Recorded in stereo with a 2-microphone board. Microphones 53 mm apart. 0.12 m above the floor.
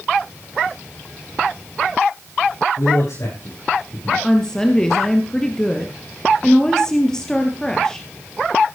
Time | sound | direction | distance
2.8 | a man speaking | 80° left | 8 m
4.2 | a woman speaking | 15° left (ahead or behind) | 2 m